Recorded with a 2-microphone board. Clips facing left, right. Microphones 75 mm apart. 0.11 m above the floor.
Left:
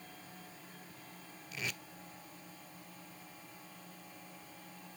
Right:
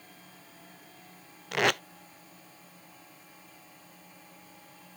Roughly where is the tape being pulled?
Right.